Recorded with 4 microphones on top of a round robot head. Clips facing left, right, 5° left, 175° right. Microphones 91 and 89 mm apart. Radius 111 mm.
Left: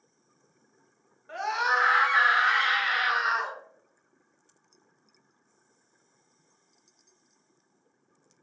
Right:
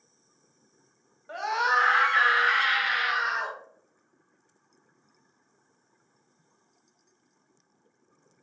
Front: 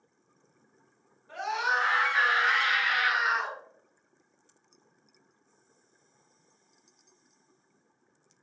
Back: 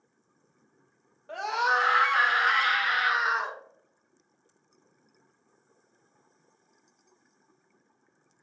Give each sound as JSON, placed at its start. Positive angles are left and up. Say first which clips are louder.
{"t": 1.3, "sound": "a scream", "louder": "right 1 dB, back 3 dB", "azimuth_deg": -170, "distance_m": 1.7}